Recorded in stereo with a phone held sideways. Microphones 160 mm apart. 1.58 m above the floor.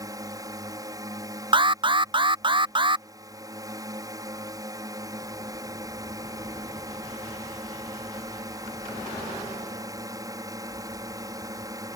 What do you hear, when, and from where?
0.0 s a drone: 20° right (ahead or behind)
1.5 s an alarm: 30° right (ahead or behind)